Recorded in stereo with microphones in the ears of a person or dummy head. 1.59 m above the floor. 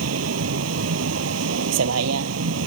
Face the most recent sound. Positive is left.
turn(degrees=-75)  # may be behind; listen again after turning